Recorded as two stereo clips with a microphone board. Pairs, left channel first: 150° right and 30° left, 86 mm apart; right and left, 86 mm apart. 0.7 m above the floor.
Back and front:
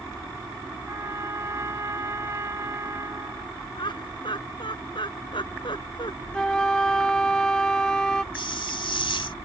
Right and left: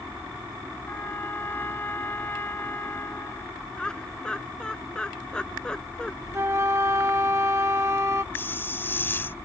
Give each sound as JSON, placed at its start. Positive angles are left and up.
{"t": 0.9, "sound": "a trumpet", "azimuth_deg": -25}
{"t": 3.8, "sound": "laughter", "azimuth_deg": -170}
{"t": 6.3, "sound": "a flute", "azimuth_deg": 130}
{"t": 8.3, "sound": "a hiss", "azimuth_deg": -155}